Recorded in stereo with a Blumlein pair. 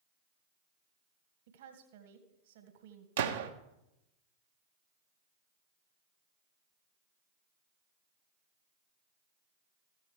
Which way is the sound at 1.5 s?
55° right.